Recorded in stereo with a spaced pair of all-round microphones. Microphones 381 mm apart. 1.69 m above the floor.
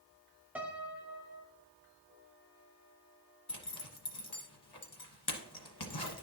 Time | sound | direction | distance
0.6 | a piano | 5° right (ahead or behind) | 0.8 m
3.5 | a zipper | 75° left (ahead or behind) | 1.3 m